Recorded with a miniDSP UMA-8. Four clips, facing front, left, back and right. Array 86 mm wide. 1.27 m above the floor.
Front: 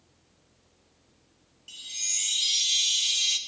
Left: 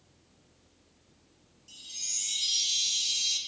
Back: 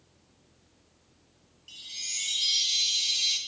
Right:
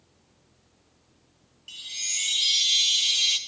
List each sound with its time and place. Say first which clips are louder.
1.7 s a chime: right 11 dB, front 2 dB; 75° right, 0.9 m